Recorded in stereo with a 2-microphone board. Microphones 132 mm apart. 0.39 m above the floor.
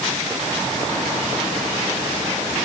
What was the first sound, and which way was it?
Only background noise.